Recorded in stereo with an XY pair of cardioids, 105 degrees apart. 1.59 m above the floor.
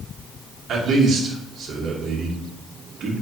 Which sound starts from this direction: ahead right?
A man speaking, at 0.7 s.